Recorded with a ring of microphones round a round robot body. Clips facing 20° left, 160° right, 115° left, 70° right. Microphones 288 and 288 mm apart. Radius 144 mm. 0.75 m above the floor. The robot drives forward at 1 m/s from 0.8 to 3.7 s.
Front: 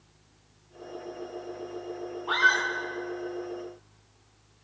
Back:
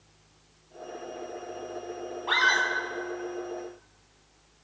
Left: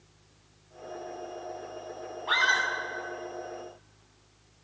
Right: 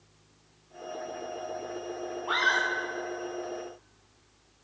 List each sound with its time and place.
2.3 s a scream: 160° left, 5 m